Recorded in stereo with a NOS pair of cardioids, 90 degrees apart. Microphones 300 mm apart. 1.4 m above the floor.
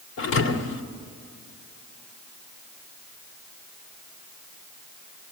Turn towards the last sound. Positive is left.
turn(degrees=70)